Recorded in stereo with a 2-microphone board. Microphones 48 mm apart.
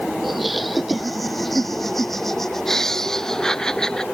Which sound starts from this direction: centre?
Laughter, at 0.2 s.